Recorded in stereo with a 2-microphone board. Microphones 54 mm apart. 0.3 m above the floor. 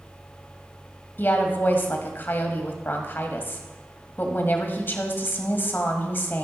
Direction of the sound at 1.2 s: 40° left (ahead or behind).